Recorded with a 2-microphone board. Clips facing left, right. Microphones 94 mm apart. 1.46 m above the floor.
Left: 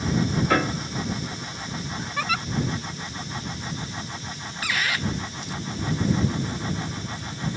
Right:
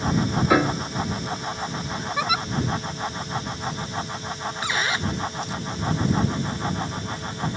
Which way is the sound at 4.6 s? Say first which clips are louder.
Right 1 dB; 25° right (ahead or behind).